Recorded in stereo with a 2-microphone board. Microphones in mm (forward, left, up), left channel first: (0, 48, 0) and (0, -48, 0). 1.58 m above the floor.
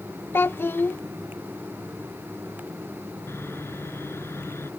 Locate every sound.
0.3 s a child speaking: 20° left (ahead or behind)
3.3 s sawing: 25° left (ahead or behind)